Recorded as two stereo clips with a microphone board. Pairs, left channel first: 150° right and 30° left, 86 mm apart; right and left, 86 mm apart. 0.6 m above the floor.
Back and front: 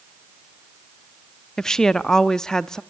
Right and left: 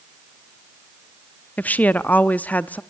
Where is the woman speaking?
80° right, 0.5 m.